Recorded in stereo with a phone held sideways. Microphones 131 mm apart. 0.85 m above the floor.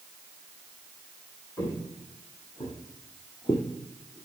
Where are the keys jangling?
No keys jangling in this recording.